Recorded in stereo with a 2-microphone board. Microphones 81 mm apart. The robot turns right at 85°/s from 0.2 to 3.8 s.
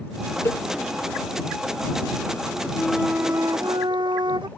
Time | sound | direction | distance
0.5 | a cowbell | 35° left (ahead or behind) | ?
2.8 | a flute | 165° left | ?